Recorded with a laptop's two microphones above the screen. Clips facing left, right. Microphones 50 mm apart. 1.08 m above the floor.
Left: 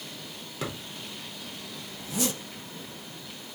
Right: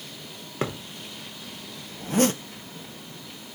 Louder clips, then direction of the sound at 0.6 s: Right 5 dB; 40° right (ahead or behind).